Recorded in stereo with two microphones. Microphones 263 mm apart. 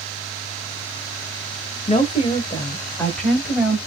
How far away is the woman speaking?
About 1.2 m.